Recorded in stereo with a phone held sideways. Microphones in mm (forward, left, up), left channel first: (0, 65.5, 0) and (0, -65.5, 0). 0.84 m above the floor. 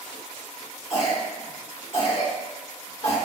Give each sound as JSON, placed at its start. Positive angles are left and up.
{"t": 0.9, "sound": "a cough", "side_deg": 55, "distance_m": 1.2}